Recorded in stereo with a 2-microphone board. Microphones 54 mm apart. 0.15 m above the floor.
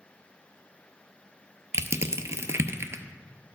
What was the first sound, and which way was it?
Crushing, 60° right (ahead or behind).